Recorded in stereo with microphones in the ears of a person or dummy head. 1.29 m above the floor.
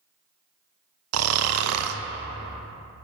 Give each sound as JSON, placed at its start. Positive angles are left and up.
{"t": 1.1, "sound": "snoring", "side_deg": -75, "distance_m": 0.5}